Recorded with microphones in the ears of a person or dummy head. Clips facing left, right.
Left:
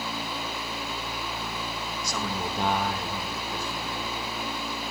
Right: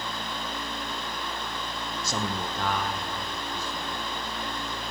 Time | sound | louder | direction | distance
2.0 | a man speaking | even | 30° right (ahead or behind) | 0.6 m